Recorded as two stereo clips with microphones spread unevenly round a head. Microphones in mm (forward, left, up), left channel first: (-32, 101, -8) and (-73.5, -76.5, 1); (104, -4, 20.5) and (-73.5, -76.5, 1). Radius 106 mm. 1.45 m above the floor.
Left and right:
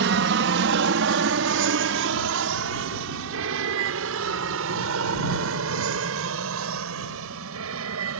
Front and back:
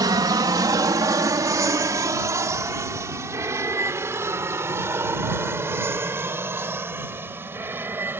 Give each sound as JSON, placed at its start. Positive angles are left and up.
{"t": 0.0, "sound": "an aircraft", "azimuth_deg": -90}